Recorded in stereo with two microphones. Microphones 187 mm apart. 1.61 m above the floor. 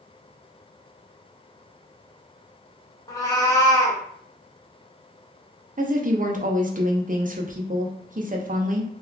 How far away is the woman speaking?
About 0.7 m.